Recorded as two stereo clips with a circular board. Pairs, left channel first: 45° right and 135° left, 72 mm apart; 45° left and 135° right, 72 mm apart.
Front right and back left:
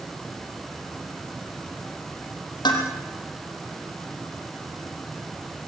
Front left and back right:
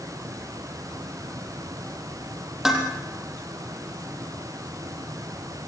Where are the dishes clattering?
50° right, 4.5 m.